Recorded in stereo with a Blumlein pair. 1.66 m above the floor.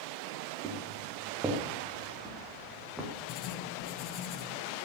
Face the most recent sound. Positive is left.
turn(degrees=35)